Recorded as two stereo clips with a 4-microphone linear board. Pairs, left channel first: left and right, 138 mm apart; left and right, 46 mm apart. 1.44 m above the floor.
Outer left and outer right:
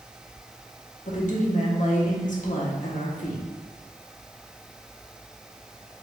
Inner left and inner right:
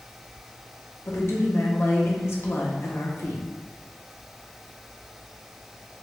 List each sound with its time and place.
1.1 s a woman speaking: 65° left (ahead or behind), 0.9 m